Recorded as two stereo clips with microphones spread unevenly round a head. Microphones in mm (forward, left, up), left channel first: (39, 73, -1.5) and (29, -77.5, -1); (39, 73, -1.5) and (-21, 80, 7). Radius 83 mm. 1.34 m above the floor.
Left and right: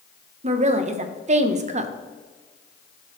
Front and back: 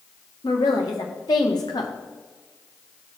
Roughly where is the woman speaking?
Ahead right.